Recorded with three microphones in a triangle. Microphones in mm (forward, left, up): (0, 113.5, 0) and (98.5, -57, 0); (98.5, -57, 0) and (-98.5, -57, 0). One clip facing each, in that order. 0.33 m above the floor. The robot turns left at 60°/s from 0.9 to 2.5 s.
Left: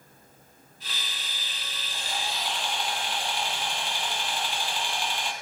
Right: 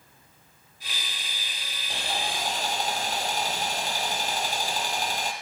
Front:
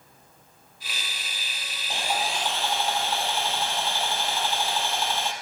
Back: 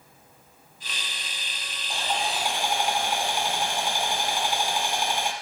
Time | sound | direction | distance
1.9 | sawing | 70° right | 2.0 m